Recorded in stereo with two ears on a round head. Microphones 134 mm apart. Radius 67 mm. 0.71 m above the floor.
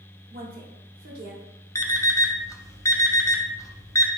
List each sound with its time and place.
0.3 s a woman speaking: 70° right (ahead or behind), 1.3 m
1.8 s an alarm clock: 20° left (ahead or behind), 0.5 m